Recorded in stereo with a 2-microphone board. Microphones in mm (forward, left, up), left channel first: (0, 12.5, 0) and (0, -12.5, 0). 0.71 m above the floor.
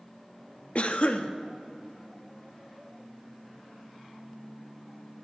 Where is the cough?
50° left (ahead or behind), 0.6 m.